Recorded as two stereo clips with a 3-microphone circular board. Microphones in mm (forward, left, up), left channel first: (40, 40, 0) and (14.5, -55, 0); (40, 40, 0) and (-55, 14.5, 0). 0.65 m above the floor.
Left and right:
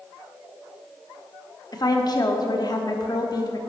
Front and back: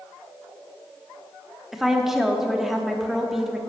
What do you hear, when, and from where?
1.7 s a woman speaking: 110° left, 1.0 m